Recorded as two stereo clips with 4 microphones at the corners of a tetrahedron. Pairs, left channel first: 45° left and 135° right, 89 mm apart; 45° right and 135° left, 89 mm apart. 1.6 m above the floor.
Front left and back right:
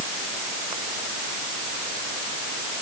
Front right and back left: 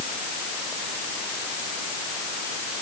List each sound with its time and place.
Only background noise.